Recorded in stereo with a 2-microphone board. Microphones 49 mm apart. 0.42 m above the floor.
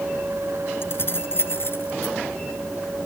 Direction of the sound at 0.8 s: 55° left (ahead or behind).